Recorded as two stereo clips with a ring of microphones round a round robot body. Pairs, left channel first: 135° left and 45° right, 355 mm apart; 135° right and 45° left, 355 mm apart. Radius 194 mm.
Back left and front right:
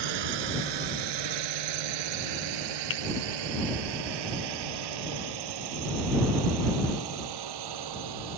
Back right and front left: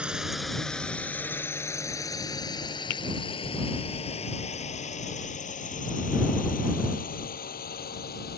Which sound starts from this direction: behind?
A finger snap, at 2.9 s.